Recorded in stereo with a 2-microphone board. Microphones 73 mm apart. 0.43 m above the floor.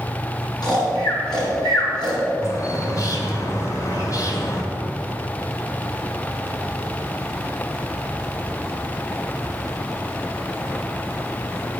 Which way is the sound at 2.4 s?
50° left (ahead or behind).